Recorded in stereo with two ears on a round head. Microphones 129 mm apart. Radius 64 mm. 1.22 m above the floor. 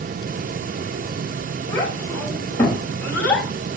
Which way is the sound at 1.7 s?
15° left (ahead or behind).